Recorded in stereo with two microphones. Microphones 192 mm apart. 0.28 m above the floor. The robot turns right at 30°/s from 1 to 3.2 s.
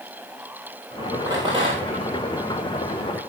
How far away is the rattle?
About 5 m.